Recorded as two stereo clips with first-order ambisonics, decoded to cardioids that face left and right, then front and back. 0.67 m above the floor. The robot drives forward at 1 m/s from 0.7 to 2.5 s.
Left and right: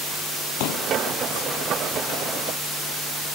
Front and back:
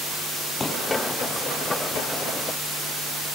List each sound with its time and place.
0.6 s a pop: 75° left